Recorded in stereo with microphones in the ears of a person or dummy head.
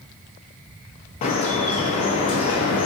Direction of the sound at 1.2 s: 35° left (ahead or behind).